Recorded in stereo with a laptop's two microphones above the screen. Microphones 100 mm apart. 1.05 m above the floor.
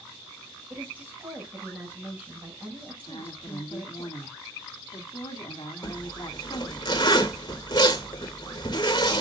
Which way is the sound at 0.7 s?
15° right (ahead or behind).